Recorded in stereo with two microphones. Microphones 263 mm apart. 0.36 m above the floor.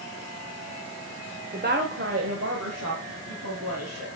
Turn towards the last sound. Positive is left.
turn(degrees=-70)  # may be behind; listen again after turning